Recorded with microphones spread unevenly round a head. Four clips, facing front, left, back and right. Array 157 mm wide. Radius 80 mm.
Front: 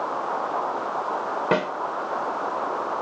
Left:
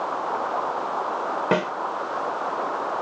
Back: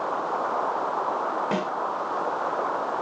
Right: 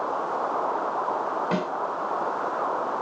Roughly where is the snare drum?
Ahead left.